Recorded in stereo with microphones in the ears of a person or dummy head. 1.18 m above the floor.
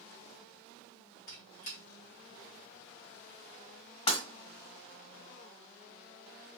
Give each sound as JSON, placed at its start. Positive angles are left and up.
{"t": 1.3, "sound": "a squeak", "side_deg": 50, "distance_m": 1.0}
{"t": 4.1, "sound": "breaking glass", "side_deg": 35, "distance_m": 1.5}